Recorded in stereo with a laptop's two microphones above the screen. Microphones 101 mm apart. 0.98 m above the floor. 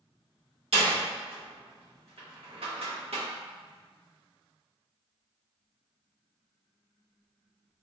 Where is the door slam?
75° right (ahead or behind), 0.9 m.